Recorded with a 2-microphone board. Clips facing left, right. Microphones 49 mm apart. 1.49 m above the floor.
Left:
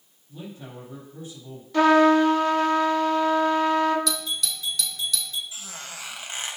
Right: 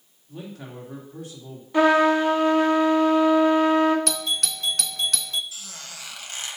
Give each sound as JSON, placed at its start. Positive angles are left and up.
{"t": 0.3, "sound": "a man speaking", "side_deg": -75, "distance_m": 3.0}
{"t": 1.7, "sound": "a trumpet", "side_deg": -20, "distance_m": 1.4}
{"t": 4.1, "sound": "a doorbell", "side_deg": -55, "distance_m": 0.6}
{"t": 5.5, "sound": "a squeak", "side_deg": 25, "distance_m": 1.3}